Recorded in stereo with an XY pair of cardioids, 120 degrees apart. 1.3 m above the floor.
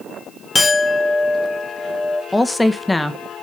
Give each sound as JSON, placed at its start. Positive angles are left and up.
{"t": 0.6, "sound": "a clink", "azimuth_deg": 20, "distance_m": 0.7}
{"t": 2.3, "sound": "a woman speaking", "azimuth_deg": 10, "distance_m": 1.0}